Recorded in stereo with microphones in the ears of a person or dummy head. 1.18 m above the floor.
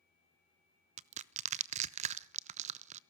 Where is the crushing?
35° right (ahead or behind), 0.7 m.